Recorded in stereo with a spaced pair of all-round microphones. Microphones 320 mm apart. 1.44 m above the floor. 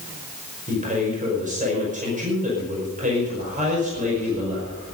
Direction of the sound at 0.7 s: 25° right (ahead or behind).